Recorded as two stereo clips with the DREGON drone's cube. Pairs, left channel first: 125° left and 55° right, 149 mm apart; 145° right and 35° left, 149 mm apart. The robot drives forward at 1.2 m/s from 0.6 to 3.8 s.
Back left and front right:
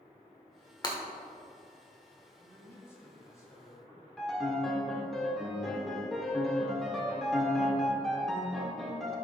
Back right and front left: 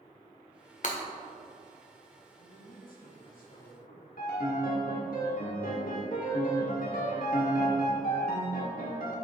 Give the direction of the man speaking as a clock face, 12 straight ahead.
5 o'clock.